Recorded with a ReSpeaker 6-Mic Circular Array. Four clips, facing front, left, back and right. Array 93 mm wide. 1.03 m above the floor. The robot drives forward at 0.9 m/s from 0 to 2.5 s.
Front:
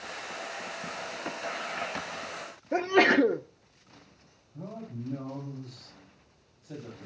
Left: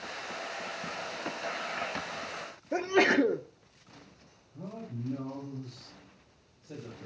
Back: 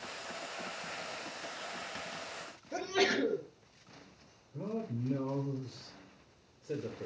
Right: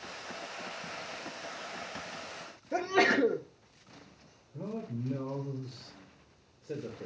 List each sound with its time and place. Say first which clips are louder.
2.7 s a sneeze: left 2 dB, front 9 dB; 15° left, 0.5 m
4.5 s a man speaking: right 3 dB, back 3 dB; 145° right, 3 m